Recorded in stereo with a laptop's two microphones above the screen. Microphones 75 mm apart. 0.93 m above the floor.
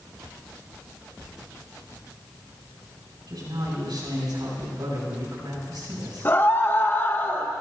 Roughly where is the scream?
Left.